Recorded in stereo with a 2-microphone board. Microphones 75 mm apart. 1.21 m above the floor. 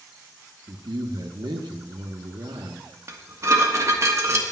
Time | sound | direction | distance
0.7 | a man speaking | 75° right (ahead or behind) | 1.2 m
3.1 | dishes clattering | 45° right (ahead or behind) | 1.5 m